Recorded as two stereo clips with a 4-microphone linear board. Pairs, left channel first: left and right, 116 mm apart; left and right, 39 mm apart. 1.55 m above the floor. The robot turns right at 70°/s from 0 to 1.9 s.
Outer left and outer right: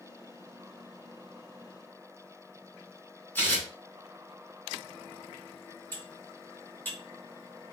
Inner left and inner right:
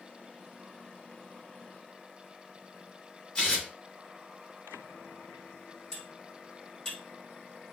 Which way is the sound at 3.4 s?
20° left (ahead or behind).